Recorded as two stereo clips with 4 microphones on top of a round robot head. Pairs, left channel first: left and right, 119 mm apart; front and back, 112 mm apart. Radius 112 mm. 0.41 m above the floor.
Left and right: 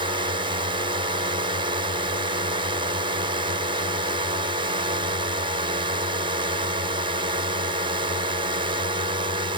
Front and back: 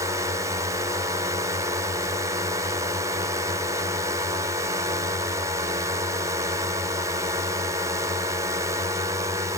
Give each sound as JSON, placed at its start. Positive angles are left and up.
{"t": 0.0, "sound": "a drone", "azimuth_deg": -120}